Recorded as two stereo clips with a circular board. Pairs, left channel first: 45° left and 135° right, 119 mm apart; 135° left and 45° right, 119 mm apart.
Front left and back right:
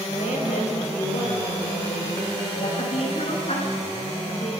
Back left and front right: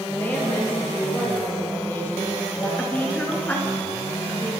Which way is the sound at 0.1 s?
60° left.